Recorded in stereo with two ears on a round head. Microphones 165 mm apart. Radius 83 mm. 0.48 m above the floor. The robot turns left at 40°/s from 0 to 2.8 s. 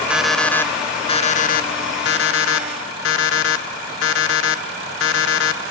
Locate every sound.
0.1 s an alarm clock: 175° right, 0.9 m; by 5.6 s 80° left, 0.9 m